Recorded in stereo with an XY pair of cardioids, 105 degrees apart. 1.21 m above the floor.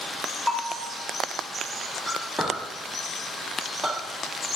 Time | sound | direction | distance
0.5 | a bell | 35° left | 0.8 m
2.1 | a clink | 5° right | 1.6 m